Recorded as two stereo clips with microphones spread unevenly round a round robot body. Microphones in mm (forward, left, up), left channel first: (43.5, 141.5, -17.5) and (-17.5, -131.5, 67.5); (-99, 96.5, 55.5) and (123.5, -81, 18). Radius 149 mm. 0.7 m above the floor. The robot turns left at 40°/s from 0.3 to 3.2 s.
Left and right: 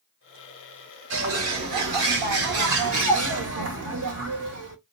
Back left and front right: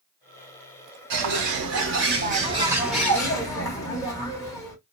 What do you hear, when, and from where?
1.1 s a bird: 55° right, 0.8 m; by 4.8 s 140° right, 0.8 m